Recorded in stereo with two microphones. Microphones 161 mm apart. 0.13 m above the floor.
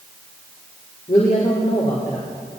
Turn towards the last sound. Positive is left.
turn(degrees=45)  # may be behind; listen again after turning